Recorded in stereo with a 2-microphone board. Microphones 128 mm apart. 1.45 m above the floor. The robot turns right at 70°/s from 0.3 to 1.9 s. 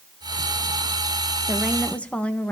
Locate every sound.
1.5 s a woman speaking: 20° right (ahead or behind), 1.7 m; by 2.5 s 10° left (ahead or behind), 1.7 m